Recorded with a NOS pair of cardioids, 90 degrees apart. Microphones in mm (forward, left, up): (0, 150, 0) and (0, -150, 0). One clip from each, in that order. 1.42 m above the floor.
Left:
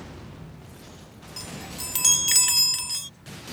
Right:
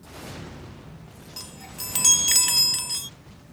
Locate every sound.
1.4 s a chime: 5° right